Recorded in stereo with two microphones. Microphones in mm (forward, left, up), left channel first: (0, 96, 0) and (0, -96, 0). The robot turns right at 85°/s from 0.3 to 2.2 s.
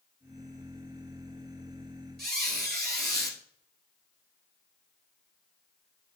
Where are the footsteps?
I don't hear footsteps.